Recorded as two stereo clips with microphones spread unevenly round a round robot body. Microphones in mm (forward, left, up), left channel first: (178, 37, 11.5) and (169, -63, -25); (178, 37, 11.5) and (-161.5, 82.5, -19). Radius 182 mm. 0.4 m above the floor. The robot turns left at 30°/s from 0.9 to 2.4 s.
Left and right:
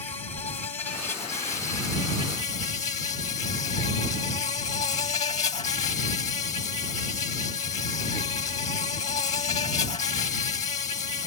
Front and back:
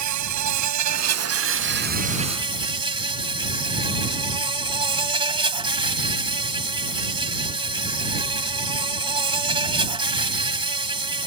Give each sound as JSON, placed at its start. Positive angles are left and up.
{"t": 0.0, "sound": "an insect", "azimuth_deg": 145}